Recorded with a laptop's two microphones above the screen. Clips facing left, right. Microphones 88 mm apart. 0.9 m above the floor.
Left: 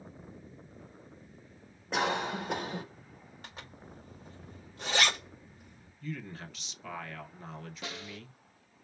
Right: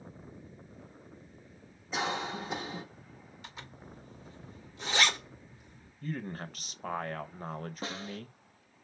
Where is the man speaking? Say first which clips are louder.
Right 3 dB; 45° right (ahead or behind), 0.7 m.